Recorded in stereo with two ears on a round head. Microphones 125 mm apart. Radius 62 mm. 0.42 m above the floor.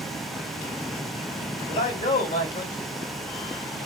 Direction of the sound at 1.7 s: 55° left (ahead or behind).